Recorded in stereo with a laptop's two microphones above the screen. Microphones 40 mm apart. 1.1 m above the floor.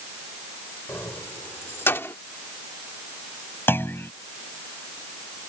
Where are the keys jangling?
85° left; by 2.1 s 80° left.